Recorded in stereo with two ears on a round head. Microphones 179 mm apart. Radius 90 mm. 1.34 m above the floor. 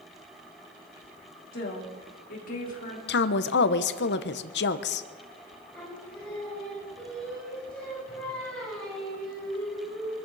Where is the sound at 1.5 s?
50° left (ahead or behind), 3.5 m; by 3.0 s 40° left (ahead or behind), 4 m.